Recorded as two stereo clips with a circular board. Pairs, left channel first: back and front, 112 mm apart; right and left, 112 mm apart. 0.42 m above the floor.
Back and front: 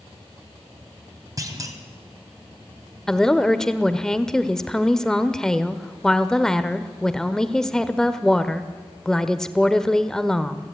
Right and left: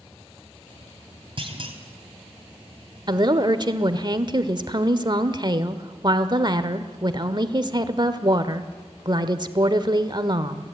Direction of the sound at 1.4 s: 55° left.